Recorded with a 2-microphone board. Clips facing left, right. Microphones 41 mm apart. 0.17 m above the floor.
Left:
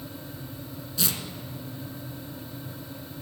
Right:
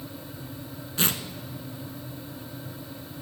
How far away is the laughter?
No laughter in this recording.